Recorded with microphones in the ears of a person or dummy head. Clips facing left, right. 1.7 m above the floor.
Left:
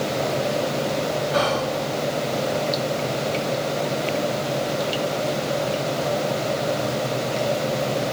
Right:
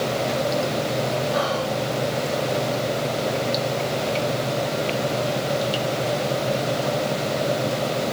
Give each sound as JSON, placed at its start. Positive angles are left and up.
{"t": 1.3, "sound": "whispering", "side_deg": 30, "distance_m": 0.7}